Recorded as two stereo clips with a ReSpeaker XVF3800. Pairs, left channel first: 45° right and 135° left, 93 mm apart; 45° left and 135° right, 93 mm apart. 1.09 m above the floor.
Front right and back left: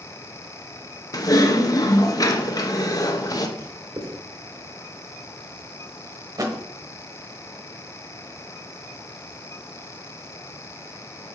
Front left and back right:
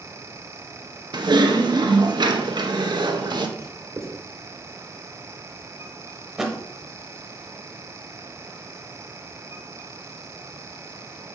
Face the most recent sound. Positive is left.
turn(degrees=140)